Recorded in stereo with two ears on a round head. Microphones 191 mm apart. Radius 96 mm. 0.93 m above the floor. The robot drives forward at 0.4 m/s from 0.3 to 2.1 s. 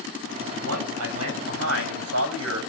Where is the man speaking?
85° right, 4.5 m; by 2.7 s 80° right, 4.5 m.